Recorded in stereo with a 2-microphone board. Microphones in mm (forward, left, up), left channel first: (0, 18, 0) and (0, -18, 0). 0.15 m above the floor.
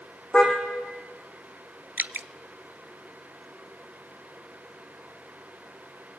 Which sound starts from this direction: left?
A car horn, at 0.3 s.